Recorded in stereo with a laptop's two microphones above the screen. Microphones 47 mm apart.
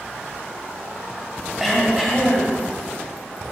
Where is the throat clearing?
5° right (ahead or behind), 2 m.